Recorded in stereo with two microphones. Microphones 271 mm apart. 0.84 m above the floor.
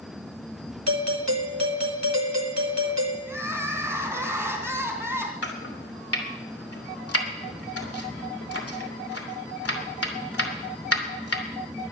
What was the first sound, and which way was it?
A doorbell, 75° right (ahead or behind).